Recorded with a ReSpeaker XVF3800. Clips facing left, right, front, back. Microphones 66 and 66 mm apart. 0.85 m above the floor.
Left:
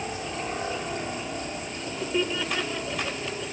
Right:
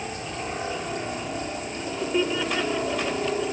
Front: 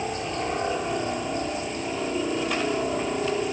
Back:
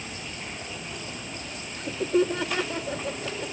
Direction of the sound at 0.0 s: 5° left.